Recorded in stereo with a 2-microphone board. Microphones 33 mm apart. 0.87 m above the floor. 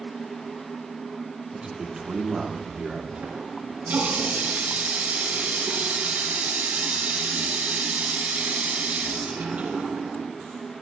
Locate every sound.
1.5 s a man speaking: 25° right (ahead or behind), 2.5 m
3.1 s a running tap: 50° right (ahead or behind), 7 m